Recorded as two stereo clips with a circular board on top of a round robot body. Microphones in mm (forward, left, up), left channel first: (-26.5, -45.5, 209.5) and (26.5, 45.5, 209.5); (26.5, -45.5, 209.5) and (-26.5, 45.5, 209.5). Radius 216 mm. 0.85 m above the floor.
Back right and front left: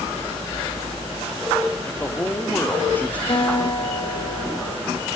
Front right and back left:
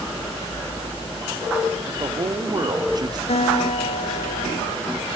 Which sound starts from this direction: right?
A guitar, at 3.3 s.